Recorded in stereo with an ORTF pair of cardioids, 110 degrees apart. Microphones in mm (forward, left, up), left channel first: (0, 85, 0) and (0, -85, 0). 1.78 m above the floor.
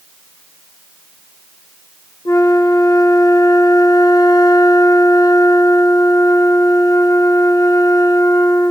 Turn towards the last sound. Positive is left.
turn(degrees=20)